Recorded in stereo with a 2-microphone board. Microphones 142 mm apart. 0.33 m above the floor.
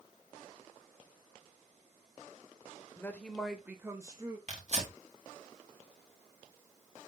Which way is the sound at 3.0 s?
15° left (ahead or behind).